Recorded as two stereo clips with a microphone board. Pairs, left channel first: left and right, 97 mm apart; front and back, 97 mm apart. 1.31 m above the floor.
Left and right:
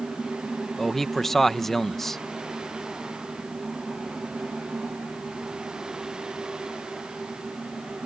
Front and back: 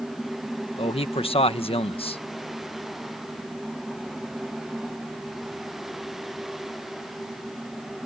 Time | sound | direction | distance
0.8 | a man speaking | 5° left | ?